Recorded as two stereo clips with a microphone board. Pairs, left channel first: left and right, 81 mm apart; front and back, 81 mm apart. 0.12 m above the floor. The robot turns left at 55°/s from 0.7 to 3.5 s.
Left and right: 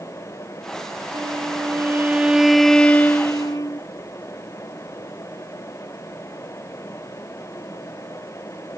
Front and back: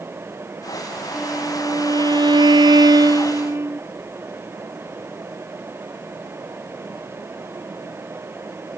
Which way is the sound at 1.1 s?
100° right.